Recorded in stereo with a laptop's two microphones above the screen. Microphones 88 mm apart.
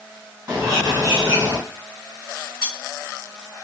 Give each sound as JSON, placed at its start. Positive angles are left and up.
{"t": 0.5, "sound": "a bird", "side_deg": -40, "distance_m": 2.0}
{"t": 2.6, "sound": "cutlery clinking", "side_deg": -5, "distance_m": 2.5}